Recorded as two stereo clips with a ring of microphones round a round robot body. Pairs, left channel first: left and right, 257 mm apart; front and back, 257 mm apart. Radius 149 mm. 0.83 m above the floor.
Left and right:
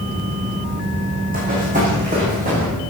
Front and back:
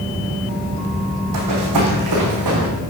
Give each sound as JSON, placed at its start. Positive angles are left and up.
{"t": 1.3, "sound": "running footsteps", "azimuth_deg": -155, "distance_m": 3.0}